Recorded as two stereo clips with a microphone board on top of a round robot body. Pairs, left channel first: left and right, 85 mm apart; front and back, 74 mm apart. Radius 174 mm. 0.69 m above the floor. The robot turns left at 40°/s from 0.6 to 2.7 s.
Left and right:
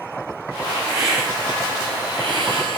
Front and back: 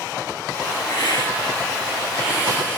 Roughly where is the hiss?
Ahead.